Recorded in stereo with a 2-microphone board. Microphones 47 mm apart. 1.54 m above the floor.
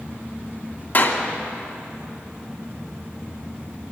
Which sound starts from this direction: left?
A clap, at 0.9 s.